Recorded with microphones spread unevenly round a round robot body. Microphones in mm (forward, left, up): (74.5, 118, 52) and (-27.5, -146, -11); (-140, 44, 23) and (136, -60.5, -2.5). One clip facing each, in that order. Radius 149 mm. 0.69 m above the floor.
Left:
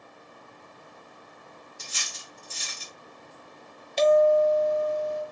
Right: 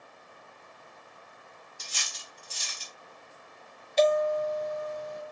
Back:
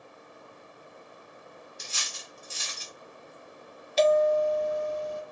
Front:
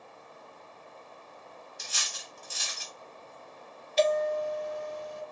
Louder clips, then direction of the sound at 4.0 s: Left 5 dB, back 5 dB; 125° left.